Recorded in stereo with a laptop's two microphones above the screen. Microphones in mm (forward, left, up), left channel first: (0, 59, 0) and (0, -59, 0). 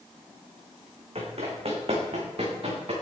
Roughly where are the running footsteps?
Right.